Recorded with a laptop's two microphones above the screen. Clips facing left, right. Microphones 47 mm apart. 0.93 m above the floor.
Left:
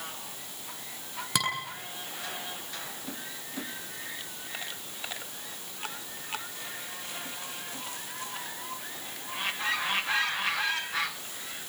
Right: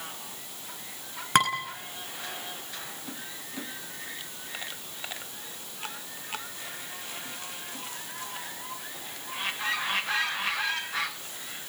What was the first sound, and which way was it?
Dishes clattering, 50° right (ahead or behind).